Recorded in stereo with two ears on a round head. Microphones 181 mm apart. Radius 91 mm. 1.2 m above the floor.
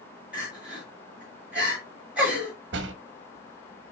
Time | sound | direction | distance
0.3 | crying | 5° right (ahead or behind) | 6.5 m
2.7 | a door slam | 60° right (ahead or behind) | 1.2 m